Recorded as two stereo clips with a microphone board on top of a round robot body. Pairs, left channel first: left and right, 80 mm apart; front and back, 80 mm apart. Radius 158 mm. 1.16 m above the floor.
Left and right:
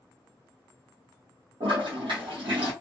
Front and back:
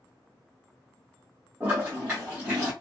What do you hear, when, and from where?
1.6 s a toilet flushing: 105° right, 0.8 m